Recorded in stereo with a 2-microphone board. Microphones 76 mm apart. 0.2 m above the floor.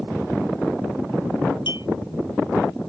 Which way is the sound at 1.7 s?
75° left (ahead or behind).